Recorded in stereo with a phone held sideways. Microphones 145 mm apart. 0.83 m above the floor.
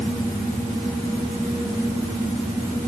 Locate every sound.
Only background noise.